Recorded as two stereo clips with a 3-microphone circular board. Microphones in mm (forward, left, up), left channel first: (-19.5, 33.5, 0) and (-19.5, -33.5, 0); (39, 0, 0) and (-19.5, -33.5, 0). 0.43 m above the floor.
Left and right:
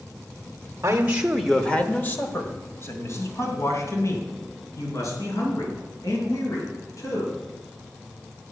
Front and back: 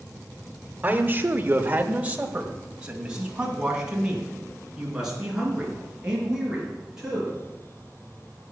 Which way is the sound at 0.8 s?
100° right.